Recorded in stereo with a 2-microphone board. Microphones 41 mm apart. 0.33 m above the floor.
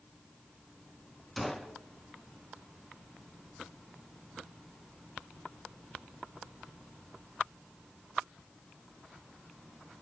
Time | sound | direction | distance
1.4 | a gunshot | 5° left (ahead or behind) | 1.5 m